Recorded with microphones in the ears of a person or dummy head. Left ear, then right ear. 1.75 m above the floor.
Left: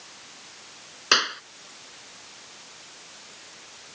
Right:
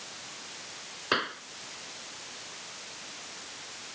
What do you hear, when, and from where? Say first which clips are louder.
1.1 s a clap: left 8 dB; 75° left (ahead or behind)